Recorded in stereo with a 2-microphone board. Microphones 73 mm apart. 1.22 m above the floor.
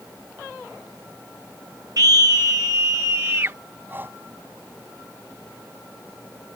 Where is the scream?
55° right (ahead or behind); by 3.6 s 40° right (ahead or behind).